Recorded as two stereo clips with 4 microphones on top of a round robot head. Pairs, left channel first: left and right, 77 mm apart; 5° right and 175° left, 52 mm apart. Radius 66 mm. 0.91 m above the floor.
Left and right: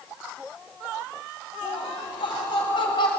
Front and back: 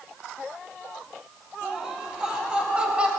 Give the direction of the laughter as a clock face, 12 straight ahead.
9 o'clock.